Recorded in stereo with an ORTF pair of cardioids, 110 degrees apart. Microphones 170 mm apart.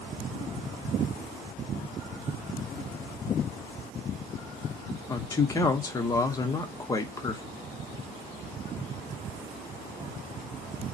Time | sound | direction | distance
5.1 | a man speaking | 20° left | 0.8 m